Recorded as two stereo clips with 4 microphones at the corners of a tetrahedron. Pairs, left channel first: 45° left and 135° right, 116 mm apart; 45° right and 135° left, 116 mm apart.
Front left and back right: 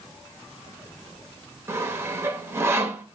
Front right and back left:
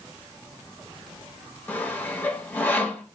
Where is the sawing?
100° right, 0.8 m.